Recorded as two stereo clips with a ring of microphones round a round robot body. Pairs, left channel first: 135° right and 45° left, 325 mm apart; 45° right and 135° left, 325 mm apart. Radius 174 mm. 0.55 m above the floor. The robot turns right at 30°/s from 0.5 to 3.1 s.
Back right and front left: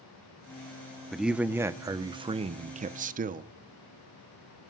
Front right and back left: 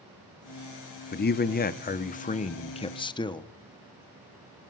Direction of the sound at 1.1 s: 45° right.